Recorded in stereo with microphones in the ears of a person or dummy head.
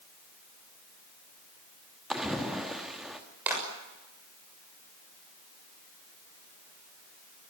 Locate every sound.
2.1 s a splash: centre (ahead or behind), 1.2 m
3.5 s a clap: 10° right (ahead or behind), 6.5 m